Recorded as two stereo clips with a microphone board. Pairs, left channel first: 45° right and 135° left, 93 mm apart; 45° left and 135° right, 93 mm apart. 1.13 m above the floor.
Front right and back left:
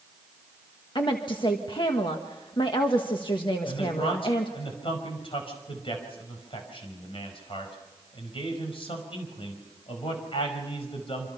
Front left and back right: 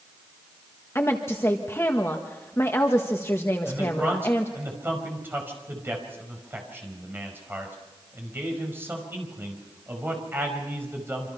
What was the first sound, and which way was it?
A woman speaking, 15° right.